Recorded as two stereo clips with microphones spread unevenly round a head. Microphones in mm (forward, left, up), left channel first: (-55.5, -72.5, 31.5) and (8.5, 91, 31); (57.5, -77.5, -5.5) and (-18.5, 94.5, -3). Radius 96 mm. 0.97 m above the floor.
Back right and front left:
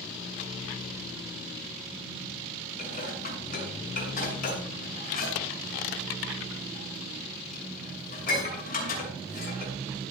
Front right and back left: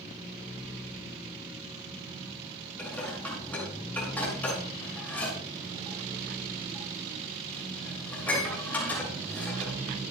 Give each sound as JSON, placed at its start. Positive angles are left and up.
{"t": 2.8, "sound": "dishes clattering", "azimuth_deg": -150, "distance_m": 7.0}